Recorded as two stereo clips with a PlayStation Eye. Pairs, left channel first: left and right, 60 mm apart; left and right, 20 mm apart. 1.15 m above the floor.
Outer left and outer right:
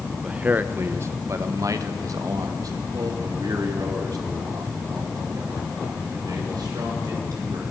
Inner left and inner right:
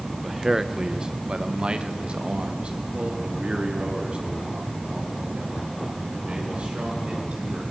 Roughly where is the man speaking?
Centre.